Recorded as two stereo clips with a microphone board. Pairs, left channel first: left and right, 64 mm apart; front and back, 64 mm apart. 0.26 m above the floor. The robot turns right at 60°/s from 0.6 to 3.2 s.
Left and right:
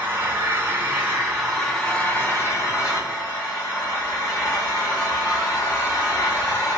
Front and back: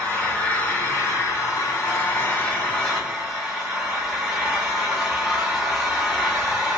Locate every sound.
0.0 s an engine running: 55° right, 2.0 m; by 6.8 s 100° left, 2.0 m